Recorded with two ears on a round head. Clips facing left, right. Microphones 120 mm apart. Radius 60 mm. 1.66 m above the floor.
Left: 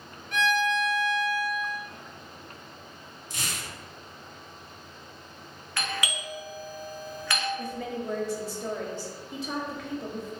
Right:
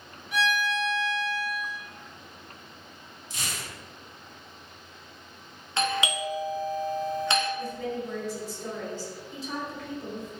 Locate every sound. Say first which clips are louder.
0.3 s a violin: left 2 dB; 10° right (ahead or behind), 0.7 m
3.3 s tearing paper: even; 45° left (ahead or behind), 1.3 m
5.8 s a doorbell: right 6 dB; 20° right (ahead or behind), 0.6 m
7.6 s a woman speaking: right 1 dB; 50° left (ahead or behind), 1.3 m